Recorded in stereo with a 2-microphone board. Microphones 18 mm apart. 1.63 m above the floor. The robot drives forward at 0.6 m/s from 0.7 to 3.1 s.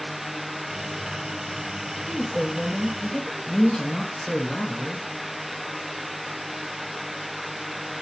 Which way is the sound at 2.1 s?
45° left (ahead or behind).